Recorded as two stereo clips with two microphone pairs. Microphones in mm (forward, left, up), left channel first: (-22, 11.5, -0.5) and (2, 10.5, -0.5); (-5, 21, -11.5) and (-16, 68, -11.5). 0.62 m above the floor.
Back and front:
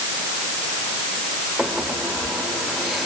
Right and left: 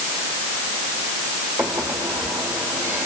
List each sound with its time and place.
1.6 s a microwave: 85° left, 1.8 m